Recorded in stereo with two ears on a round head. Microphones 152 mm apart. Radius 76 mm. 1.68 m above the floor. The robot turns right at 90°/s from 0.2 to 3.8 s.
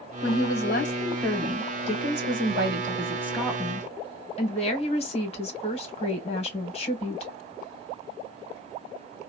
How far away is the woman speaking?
About 1.3 m.